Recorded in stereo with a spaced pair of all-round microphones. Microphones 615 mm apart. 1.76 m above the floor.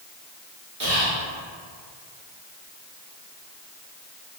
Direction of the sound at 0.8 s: 40° right (ahead or behind).